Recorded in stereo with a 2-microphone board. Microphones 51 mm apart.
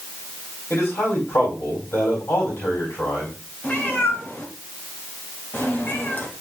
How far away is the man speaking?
About 4 m.